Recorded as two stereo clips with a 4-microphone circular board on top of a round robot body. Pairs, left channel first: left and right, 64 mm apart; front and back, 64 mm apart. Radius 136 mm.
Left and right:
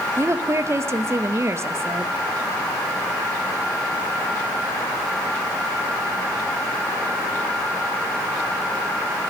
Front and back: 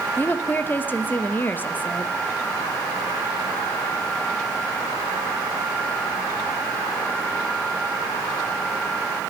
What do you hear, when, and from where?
0.2 s a woman speaking: 55° right, 1.0 m